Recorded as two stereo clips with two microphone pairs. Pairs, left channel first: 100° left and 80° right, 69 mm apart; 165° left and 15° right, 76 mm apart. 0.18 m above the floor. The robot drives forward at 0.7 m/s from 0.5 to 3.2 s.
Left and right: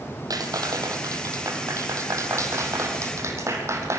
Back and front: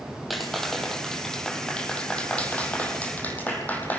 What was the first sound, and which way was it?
A clap, 105° right.